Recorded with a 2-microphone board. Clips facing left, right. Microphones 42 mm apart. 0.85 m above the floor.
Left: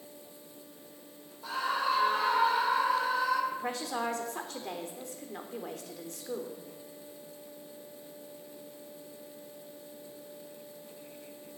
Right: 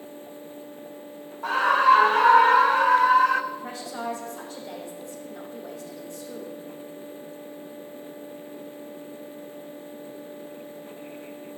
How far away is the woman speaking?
About 3 m.